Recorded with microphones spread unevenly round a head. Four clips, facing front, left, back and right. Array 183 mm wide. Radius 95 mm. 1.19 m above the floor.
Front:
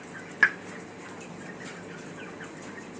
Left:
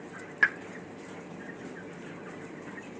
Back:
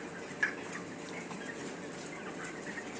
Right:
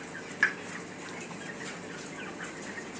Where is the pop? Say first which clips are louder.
Left 2 dB, front 11 dB; 15° left, 0.8 m.